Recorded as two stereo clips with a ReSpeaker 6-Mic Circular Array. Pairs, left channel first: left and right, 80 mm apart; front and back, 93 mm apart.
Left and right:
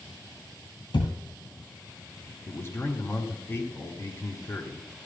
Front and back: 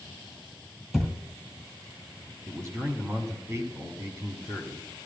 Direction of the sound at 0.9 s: 95° left.